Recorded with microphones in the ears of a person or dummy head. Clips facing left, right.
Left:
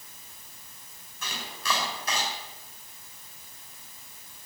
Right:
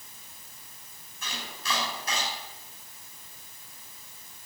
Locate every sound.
1.2 s chopping: 65° left (ahead or behind), 6.5 m